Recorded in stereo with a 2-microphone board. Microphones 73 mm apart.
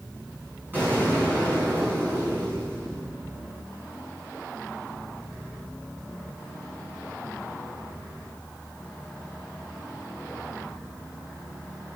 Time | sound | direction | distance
0.7 | an explosion | 30° right (ahead or behind) | 5 m